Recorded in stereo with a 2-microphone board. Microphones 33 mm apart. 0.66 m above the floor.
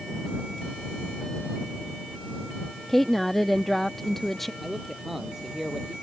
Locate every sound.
2.9 s a woman speaking: 5° left (ahead or behind)
4.6 s a man speaking: 10° right (ahead or behind)